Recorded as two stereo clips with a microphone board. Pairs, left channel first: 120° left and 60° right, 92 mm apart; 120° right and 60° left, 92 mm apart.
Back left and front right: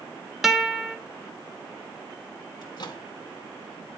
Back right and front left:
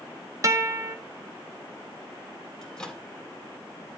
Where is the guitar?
25° left, 1.1 m.